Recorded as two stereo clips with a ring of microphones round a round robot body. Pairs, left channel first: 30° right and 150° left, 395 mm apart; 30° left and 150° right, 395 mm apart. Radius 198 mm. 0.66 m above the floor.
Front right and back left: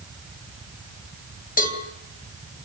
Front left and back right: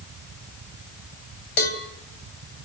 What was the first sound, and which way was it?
A cowbell, 40° left.